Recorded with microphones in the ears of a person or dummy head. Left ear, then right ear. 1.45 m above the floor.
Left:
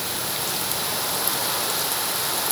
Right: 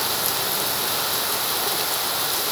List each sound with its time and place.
Only background noise.